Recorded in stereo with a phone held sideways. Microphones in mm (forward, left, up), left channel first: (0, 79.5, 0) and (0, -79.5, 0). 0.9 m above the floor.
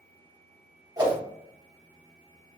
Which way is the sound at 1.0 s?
25° right (ahead or behind).